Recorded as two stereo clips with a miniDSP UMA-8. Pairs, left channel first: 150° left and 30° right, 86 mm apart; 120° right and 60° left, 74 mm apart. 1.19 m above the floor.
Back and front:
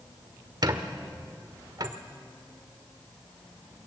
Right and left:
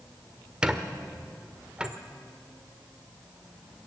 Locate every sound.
0.6 s a squeak: 15° right, 1.2 m